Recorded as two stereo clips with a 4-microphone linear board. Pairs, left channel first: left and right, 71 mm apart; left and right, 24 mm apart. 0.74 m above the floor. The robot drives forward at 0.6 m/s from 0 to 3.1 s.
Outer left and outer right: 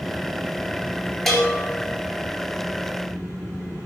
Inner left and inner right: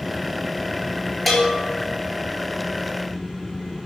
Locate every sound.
1.3 s a bell: centre (ahead or behind), 2.5 m